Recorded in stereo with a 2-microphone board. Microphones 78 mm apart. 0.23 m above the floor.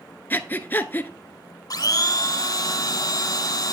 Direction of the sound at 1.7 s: 55° left (ahead or behind).